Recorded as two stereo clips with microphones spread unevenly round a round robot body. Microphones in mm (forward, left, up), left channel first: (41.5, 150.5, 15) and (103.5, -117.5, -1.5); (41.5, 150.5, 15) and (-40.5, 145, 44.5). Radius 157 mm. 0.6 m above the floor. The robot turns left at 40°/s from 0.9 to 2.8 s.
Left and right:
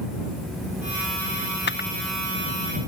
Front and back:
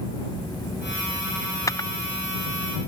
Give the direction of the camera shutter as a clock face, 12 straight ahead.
10 o'clock.